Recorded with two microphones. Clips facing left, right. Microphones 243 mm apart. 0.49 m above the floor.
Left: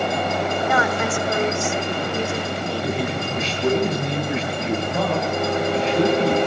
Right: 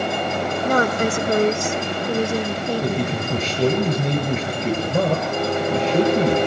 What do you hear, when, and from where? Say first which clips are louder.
0.7 s a woman speaking: right 6 dB; 40° right (ahead or behind), 1.2 m
2.8 s a man speaking: right 2 dB; 50° right (ahead or behind), 8 m